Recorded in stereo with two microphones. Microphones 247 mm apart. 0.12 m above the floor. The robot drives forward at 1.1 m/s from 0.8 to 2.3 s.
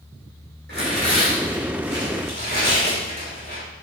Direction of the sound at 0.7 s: 40° right (ahead or behind).